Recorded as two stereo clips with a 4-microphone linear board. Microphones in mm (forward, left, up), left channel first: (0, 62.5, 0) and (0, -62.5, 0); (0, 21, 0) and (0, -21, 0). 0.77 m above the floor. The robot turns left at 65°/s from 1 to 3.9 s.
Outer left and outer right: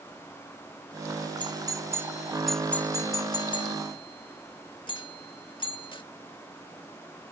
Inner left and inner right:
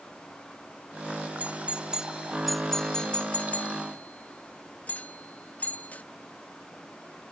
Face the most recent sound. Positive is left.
turn(degrees=40)  # may be behind; listen again after turning